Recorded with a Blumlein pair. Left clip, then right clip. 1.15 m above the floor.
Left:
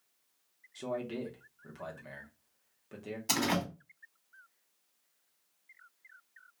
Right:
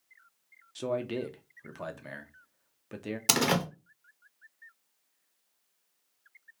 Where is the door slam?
55° right, 1.0 m.